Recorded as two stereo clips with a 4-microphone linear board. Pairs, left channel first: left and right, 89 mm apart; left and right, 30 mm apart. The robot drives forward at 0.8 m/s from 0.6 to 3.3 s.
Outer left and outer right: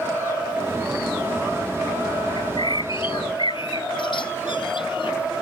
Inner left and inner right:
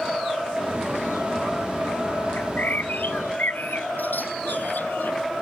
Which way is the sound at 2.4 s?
60° left (ahead or behind).